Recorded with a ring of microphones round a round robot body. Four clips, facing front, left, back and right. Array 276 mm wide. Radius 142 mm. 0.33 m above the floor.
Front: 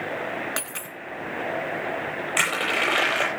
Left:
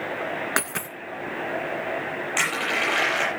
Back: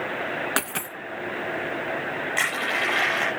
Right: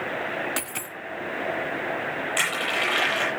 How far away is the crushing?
About 9.5 m.